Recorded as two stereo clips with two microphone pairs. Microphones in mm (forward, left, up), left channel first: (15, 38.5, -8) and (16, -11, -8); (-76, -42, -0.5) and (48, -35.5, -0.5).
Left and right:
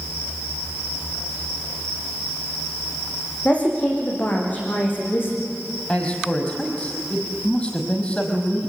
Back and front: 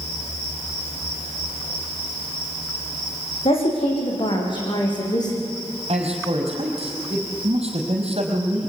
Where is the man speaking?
25° left, 4.5 m.